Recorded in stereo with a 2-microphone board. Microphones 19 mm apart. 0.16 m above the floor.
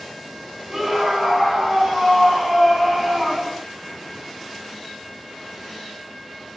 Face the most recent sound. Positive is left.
turn(degrees=0)  # may be behind; listen again after turning